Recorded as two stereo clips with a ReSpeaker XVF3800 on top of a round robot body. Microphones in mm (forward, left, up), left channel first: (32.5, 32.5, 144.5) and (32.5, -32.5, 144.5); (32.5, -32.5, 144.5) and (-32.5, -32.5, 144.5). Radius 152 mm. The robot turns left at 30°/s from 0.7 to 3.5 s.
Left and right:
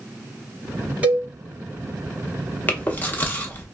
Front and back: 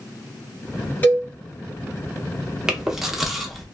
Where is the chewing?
110° left, 1.0 m; by 3.6 s 85° left, 1.0 m.